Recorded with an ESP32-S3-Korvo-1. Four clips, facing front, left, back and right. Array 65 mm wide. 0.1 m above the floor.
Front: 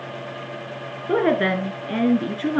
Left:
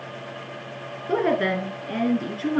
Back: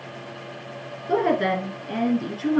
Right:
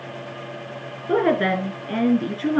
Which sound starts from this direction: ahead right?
A woman speaking, at 1.1 s.